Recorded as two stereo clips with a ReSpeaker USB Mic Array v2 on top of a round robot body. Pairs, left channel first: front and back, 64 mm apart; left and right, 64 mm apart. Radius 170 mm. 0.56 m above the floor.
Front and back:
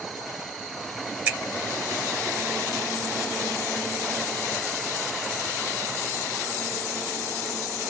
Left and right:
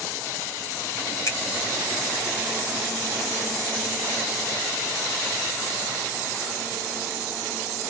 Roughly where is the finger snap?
Behind left.